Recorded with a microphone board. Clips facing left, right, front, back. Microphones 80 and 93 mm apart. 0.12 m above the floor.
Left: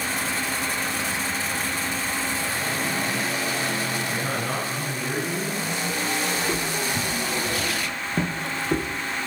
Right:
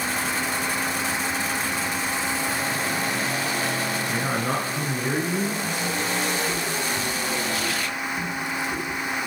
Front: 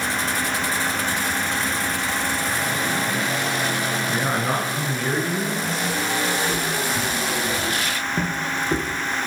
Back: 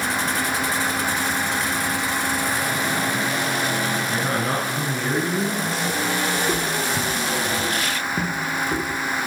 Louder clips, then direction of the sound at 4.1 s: Right 2 dB, even; 35° right.